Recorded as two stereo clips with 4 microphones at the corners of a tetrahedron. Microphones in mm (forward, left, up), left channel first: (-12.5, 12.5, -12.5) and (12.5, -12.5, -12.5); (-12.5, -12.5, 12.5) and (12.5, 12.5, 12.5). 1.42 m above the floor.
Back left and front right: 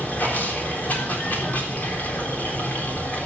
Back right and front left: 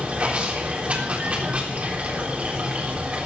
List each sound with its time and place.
0.0 s running water: 95° left, 3.5 m